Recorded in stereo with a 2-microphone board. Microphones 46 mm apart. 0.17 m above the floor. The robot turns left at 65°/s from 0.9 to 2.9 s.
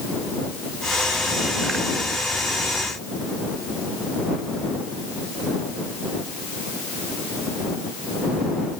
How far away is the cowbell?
No cowbell in this recording.